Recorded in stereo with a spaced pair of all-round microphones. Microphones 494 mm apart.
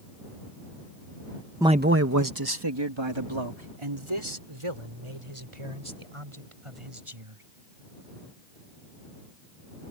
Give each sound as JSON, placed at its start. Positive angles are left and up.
{"t": 1.6, "sound": "a man speaking", "side_deg": -5}